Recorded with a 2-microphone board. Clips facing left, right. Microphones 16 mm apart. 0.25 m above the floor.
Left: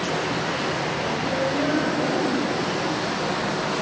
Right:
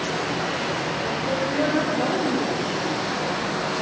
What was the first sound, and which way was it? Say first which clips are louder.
A woman speaking: right 1 dB; 65° right (ahead or behind).